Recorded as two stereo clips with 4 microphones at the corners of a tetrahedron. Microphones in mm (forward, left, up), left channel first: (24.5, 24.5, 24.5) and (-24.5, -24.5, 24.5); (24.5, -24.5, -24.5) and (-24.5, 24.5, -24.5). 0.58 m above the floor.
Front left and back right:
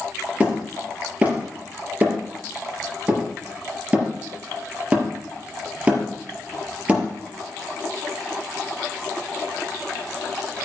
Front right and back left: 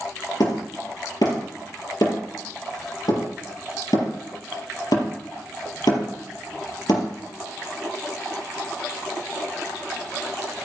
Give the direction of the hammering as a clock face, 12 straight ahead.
2 o'clock.